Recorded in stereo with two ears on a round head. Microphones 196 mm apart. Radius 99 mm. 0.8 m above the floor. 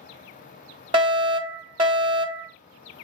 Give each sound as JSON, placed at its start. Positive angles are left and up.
{"t": 0.9, "sound": "a fire alarm", "side_deg": -20, "distance_m": 1.4}